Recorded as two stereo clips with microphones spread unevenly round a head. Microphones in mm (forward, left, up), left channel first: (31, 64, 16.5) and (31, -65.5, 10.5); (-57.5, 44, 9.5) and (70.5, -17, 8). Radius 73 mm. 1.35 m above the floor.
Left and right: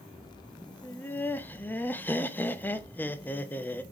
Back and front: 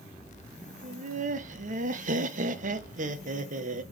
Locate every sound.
0.8 s laughter: 15° left, 0.9 m